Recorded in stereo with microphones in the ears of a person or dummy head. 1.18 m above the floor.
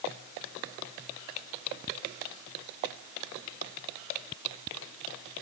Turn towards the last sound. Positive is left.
No sound to turn to.